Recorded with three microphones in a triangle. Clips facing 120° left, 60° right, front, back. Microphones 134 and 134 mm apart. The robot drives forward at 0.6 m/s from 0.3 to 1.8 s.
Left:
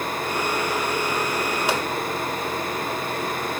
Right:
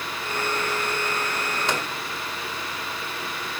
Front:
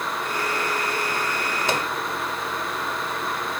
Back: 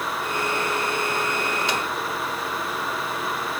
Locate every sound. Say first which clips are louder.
1.7 s a microwave: left 2 dB, front 2 dB; 40° left, 2.5 m